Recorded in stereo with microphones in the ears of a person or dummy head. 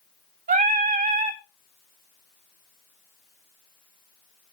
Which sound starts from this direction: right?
Singing, at 0.5 s.